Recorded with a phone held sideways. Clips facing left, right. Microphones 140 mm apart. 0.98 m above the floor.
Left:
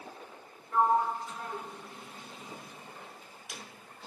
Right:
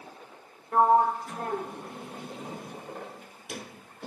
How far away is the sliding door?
About 0.5 m.